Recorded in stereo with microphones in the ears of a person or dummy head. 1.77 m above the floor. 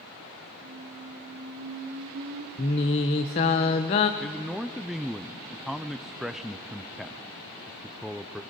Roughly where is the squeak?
Right.